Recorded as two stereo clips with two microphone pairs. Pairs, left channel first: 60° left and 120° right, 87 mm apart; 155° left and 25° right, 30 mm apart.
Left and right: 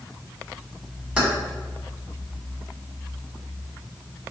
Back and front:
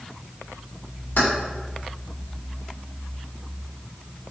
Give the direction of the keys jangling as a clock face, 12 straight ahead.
7 o'clock.